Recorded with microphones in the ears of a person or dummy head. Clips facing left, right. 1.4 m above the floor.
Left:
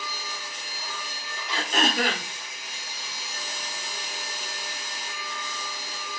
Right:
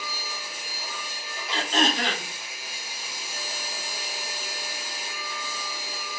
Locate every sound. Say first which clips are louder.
0.0 s a machine running: even; 5° right (ahead or behind), 2 m
1.5 s throat clearing: right 1 dB; 15° left (ahead or behind), 3 m